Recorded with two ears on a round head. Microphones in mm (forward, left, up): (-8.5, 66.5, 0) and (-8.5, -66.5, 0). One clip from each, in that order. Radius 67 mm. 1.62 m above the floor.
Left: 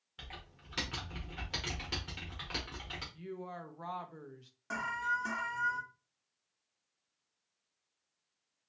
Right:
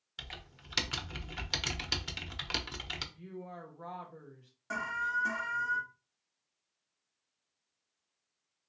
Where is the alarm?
5° left (ahead or behind), 0.7 m.